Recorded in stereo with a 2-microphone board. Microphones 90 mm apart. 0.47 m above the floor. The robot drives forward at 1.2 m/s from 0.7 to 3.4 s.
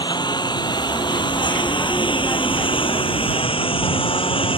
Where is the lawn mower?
55° left (ahead or behind); by 4.6 s 80° left.